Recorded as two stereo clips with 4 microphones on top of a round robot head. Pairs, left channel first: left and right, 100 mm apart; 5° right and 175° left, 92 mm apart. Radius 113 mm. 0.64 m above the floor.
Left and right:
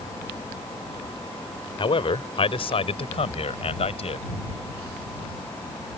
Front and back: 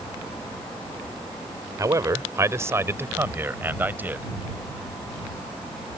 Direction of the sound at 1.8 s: 120° left.